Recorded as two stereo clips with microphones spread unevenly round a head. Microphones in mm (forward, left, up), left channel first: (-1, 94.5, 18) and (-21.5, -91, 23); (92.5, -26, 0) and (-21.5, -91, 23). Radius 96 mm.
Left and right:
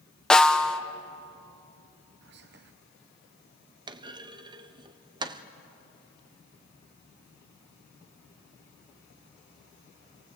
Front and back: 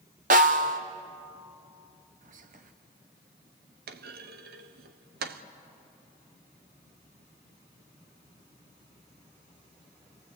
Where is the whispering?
130° right, 0.9 m.